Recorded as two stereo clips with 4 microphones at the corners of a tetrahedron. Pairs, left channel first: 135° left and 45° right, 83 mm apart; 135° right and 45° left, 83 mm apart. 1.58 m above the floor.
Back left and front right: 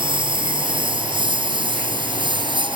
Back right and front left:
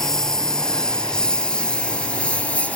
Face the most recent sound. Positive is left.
turn(degrees=-60)